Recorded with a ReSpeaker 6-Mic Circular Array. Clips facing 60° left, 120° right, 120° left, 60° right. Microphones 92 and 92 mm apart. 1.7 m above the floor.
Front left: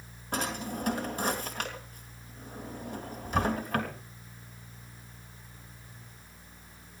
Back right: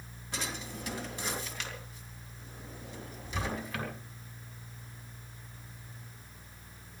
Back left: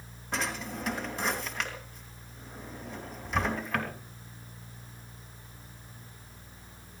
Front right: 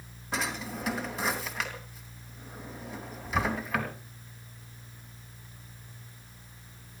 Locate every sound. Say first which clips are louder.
0.3 s a drawer: front left 7 dB, even; 30° left, 3 m